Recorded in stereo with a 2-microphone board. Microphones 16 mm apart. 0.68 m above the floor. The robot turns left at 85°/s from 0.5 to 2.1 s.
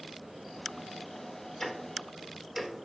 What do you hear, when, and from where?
1.6 s ticking: 30° left (ahead or behind), 0.9 m; by 2.9 s 15° right (ahead or behind), 0.9 m